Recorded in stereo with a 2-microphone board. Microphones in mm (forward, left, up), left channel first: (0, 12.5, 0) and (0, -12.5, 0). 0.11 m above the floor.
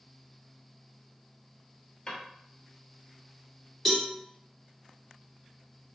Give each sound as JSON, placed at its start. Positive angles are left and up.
{"t": 2.1, "sound": "a drawer", "side_deg": 35, "distance_m": 0.9}
{"t": 3.9, "sound": "a cowbell", "side_deg": 15, "distance_m": 1.4}